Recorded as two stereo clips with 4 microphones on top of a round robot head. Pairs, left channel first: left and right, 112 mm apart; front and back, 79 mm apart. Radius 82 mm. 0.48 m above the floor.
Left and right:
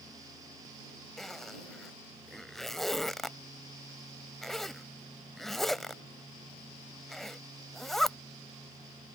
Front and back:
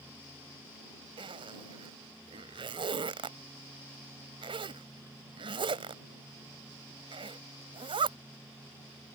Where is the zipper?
175° left.